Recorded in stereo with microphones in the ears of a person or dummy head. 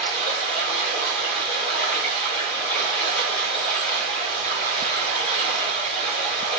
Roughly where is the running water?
Left.